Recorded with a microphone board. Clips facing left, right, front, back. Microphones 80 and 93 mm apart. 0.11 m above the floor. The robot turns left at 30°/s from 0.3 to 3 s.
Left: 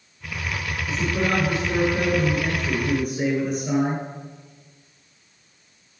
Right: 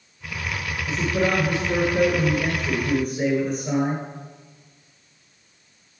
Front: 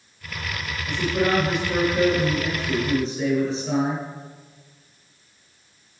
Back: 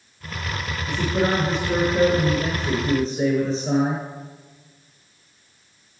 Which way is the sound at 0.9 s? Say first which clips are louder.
Right 2 dB, even; 120° right.